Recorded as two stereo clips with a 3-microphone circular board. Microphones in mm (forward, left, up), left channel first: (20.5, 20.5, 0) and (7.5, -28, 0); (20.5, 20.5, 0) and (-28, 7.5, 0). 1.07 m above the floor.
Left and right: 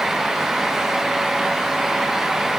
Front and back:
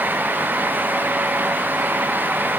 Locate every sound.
Only background noise.